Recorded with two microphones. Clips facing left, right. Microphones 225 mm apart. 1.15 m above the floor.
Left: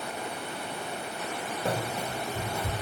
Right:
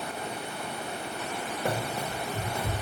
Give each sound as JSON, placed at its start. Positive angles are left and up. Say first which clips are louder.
{"t": 1.6, "sound": "running footsteps", "louder": "even", "side_deg": -15, "distance_m": 1.6}